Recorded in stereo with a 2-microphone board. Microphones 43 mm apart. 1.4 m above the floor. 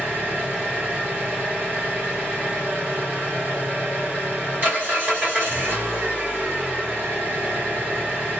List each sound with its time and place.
0.0 s an engine running: 50° right (ahead or behind), 1.4 m